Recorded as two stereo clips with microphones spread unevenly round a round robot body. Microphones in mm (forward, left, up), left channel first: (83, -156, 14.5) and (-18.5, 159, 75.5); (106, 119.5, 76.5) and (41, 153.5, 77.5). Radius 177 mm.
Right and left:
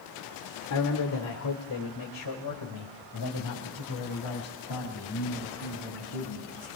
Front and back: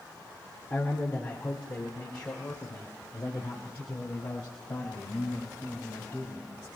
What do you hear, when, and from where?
0.7 s a man speaking: 100° right, 2 m